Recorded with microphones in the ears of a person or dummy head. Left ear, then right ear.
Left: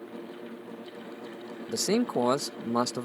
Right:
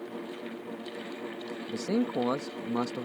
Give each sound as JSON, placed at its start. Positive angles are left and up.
{"t": 1.7, "sound": "a man speaking", "side_deg": 80}